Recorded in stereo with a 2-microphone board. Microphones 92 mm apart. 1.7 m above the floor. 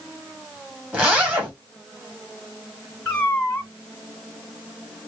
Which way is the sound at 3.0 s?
15° left (ahead or behind).